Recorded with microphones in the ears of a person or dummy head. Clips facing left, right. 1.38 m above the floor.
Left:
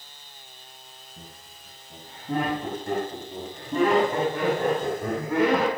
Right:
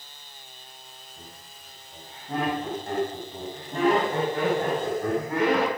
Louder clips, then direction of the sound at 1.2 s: Left 1 dB; 90° left.